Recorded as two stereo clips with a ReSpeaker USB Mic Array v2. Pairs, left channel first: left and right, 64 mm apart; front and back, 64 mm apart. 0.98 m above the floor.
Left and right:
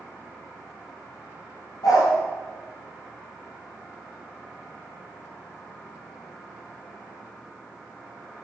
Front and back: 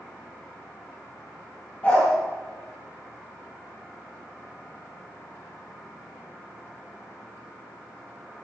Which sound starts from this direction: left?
A dog barking, at 1.8 s.